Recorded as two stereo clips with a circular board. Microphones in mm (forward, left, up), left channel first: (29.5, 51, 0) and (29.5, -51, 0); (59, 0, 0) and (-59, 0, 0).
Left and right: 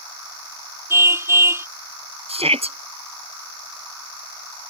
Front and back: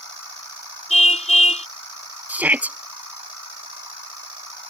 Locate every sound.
0.9 s a car horn: 25° right
2.3 s a shout: 105° right